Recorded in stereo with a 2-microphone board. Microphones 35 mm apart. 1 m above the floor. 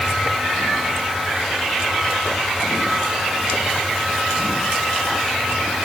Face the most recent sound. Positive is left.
No sound to turn to.